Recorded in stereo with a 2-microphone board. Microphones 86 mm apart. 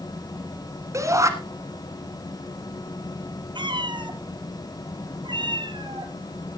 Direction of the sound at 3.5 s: 65° right (ahead or behind).